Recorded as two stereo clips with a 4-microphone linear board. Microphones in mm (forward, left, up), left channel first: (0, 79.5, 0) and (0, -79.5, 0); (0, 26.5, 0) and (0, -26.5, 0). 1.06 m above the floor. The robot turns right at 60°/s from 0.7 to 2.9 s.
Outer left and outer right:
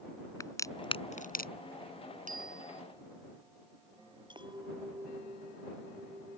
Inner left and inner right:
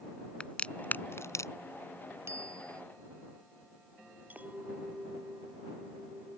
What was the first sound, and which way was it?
A crack, 20° left (ahead or behind).